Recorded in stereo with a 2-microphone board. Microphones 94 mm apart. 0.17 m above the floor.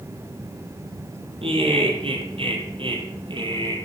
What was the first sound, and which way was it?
Laughter, 75° right (ahead or behind).